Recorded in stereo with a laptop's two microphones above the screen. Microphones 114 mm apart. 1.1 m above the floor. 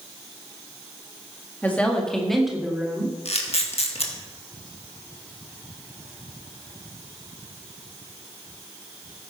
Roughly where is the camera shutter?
Left.